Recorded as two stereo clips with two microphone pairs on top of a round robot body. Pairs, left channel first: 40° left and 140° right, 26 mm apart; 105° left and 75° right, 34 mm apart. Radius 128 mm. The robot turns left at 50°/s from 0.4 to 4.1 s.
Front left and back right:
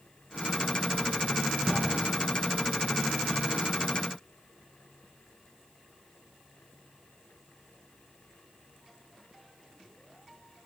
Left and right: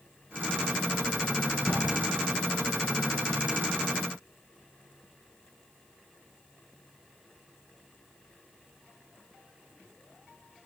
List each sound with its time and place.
1.6 s a drawer: 140° left, 6 m; by 1.9 s 130° left, 6 m